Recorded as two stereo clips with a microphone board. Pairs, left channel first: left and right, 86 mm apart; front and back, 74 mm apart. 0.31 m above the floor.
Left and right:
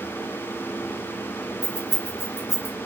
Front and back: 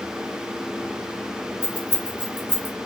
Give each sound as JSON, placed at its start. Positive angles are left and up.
{"t": 1.6, "sound": "keys jangling", "azimuth_deg": -60, "distance_m": 1.2}